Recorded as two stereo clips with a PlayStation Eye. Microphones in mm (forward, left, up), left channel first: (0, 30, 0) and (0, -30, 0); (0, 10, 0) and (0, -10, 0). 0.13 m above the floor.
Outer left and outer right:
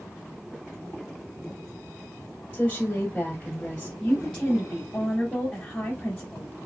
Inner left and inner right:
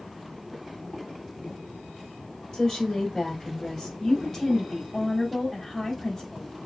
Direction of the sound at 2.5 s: 20° left (ahead or behind).